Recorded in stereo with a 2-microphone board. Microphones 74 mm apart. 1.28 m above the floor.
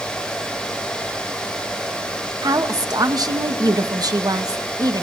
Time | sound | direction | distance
2.4 | a woman speaking | 60° right (ahead or behind) | 1.7 m